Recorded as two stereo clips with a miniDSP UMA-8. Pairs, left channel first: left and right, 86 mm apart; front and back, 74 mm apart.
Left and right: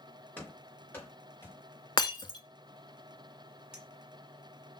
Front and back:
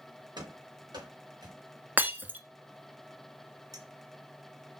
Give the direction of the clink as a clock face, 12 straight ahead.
6 o'clock.